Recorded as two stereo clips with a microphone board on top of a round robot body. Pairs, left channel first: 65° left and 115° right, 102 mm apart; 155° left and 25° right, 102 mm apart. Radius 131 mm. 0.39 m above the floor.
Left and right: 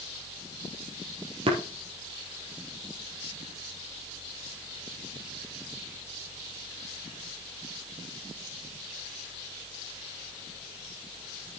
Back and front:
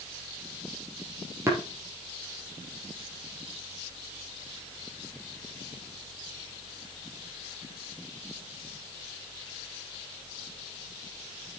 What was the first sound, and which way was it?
Tapping, 85° right.